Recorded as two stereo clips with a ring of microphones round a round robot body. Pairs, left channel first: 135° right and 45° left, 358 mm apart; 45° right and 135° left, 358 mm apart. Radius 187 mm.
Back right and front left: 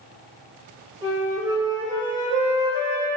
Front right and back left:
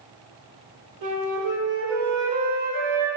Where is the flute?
125° left, 2.5 m.